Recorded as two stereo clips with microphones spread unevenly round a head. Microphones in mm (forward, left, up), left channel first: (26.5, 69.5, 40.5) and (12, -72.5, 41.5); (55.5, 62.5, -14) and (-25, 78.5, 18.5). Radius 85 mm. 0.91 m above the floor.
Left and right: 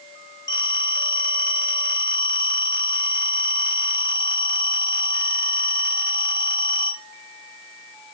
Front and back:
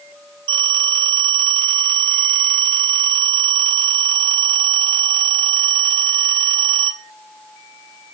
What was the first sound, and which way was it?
A phone ringing, 155° left.